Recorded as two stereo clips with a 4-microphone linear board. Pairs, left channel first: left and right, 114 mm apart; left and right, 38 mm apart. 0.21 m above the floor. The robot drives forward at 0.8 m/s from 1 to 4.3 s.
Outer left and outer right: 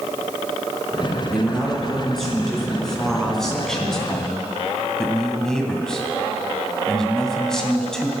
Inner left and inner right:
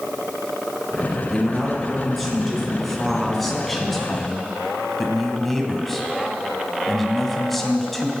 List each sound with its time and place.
1.3 s a man speaking: centre (ahead or behind), 3 m; by 8.1 s 5° left (ahead or behind), 1.2 m